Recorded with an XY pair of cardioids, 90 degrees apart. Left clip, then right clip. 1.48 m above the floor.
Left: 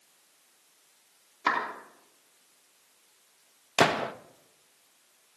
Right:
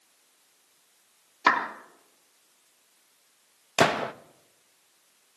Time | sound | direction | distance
1.5 | a clap | 55° right | 2.5 m
3.8 | a gunshot | 20° right | 0.8 m